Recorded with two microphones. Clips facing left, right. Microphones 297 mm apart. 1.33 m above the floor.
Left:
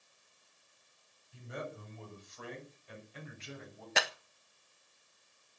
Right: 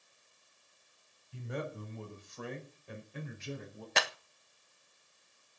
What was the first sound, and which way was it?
A man speaking, 65° right (ahead or behind).